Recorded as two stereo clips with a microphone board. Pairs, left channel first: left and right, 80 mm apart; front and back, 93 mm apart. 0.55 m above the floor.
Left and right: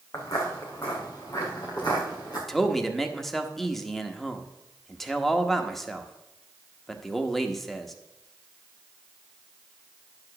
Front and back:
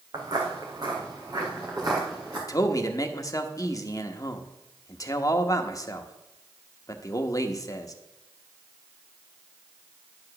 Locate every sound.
0.1 s footsteps: 135° left, 2 m; by 2.4 s 130° left, 4 m
2.5 s a man speaking: 5° left, 0.9 m